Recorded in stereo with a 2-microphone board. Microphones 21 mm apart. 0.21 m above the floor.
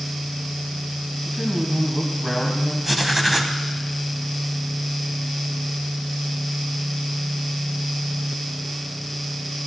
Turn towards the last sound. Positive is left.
turn(degrees=-5)  # may be behind; listen again after turning